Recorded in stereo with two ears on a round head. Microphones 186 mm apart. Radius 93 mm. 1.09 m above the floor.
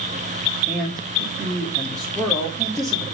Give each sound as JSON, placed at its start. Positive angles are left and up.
{"t": 0.7, "sound": "a man speaking", "side_deg": 5, "distance_m": 2.5}